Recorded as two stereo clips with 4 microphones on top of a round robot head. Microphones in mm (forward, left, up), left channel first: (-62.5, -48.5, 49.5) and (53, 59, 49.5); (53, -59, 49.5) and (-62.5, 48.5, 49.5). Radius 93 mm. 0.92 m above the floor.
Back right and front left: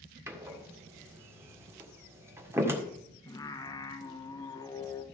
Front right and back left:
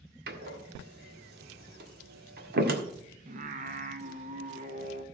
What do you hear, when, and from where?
0.3 s a door slam: 115° left, 1.7 m
3.3 s singing: 160° left, 1.2 m